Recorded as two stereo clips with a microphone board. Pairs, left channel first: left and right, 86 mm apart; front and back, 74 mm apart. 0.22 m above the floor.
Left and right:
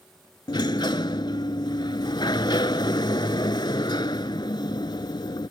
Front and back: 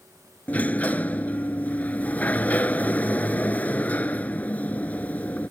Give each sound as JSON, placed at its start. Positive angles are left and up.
{"t": 0.5, "sound": "a sliding door", "azimuth_deg": 70}